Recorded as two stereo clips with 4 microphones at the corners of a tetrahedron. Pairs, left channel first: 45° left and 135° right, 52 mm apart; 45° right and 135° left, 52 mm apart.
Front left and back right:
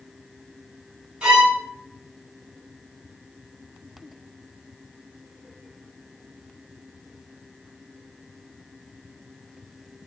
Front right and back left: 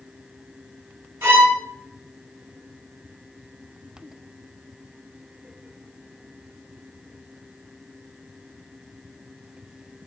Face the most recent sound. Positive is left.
turn(degrees=155)